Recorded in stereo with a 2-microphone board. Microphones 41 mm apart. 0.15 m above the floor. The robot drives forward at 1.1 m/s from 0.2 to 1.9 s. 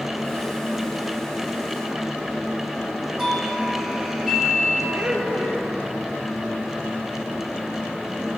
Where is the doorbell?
10° right (ahead or behind), 3 m.